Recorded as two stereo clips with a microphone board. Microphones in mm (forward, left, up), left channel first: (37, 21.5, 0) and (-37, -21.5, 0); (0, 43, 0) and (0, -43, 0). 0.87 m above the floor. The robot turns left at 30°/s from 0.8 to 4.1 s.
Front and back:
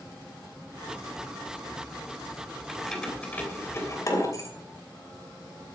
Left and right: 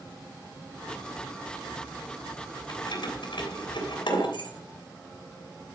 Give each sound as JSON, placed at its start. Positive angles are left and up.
{"t": 2.7, "sound": "keys jangling", "azimuth_deg": 120, "distance_m": 3.0}